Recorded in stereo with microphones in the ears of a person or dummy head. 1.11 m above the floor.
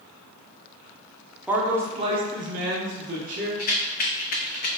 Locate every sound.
1.5 s a man speaking: 5° right (ahead or behind), 0.6 m; by 3.5 s 50° right (ahead or behind), 1.2 m
3.6 s a rattle: 50° left (ahead or behind), 0.6 m